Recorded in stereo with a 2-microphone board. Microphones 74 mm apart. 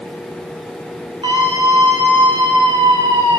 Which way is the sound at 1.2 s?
75° right (ahead or behind).